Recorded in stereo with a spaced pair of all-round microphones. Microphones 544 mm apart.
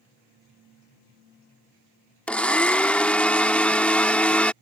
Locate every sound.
2.3 s a blender: centre (ahead or behind)